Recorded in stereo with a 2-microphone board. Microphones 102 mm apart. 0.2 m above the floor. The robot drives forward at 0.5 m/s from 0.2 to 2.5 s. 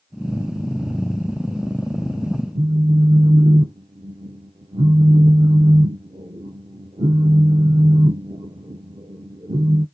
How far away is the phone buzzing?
About 0.5 m.